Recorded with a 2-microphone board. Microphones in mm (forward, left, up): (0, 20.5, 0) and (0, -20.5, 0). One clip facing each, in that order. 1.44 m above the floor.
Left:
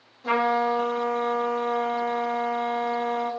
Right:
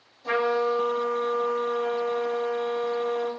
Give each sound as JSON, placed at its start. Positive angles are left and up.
{"t": 0.2, "sound": "a trumpet", "side_deg": 55, "distance_m": 1.9}